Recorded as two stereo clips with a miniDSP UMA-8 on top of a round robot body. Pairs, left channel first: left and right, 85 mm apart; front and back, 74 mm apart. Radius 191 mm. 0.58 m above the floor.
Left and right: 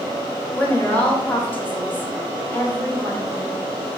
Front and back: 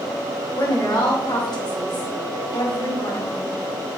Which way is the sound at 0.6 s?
20° left.